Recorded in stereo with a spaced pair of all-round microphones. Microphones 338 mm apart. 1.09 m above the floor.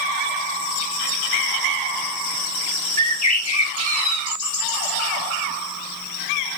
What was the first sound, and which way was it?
A bird, 50° left (ahead or behind).